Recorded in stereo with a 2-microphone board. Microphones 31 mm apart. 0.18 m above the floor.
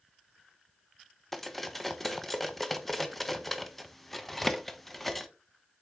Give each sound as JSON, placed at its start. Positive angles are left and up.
{"t": 1.3, "sound": "cutlery clinking", "side_deg": 5, "distance_m": 0.7}